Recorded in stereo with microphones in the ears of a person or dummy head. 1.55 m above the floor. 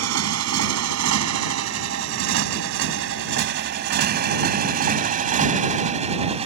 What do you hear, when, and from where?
0.0 s a motorcycle: 75° right (ahead or behind); by 6.5 s 25° right (ahead or behind)